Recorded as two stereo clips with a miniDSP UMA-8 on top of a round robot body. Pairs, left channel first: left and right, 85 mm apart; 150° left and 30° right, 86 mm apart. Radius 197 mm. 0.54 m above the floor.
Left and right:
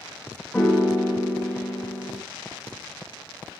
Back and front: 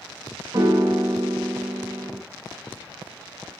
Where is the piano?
15° left, 0.9 m.